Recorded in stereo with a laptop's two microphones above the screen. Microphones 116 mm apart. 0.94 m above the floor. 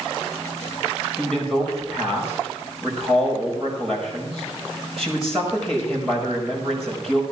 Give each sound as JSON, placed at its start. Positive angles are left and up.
{"t": 1.2, "sound": "a man speaking", "side_deg": 0, "distance_m": 5.0}